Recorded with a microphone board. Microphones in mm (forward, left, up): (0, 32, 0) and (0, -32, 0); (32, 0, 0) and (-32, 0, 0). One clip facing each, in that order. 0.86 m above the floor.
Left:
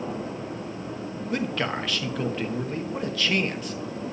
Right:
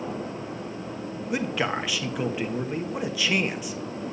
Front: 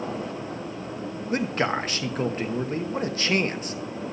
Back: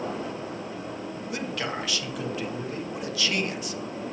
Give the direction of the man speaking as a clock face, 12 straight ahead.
1 o'clock.